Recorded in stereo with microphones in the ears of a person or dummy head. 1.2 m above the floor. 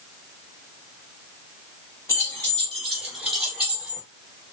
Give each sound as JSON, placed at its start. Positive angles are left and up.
{"t": 2.1, "sound": "keys jangling", "side_deg": 20, "distance_m": 1.3}